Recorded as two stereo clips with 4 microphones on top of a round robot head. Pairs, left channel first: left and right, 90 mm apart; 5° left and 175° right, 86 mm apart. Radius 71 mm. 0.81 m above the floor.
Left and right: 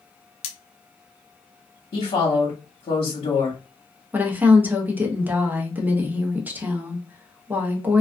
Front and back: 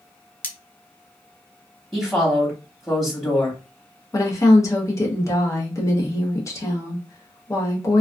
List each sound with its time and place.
0.4 s cutlery clinking: 75° left, 0.6 m
1.9 s a woman speaking: 90° left, 1.0 m
4.1 s a woman speaking: 30° right, 0.8 m